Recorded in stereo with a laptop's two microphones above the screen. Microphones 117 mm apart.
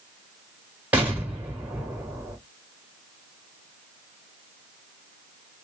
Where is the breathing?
No breathing in this recording.